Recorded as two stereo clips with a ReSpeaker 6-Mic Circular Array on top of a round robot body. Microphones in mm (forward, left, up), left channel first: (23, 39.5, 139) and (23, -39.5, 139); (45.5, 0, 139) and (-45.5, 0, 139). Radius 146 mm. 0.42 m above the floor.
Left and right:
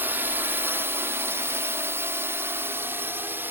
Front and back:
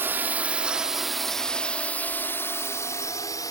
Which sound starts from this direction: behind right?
A drone, at 0.0 s.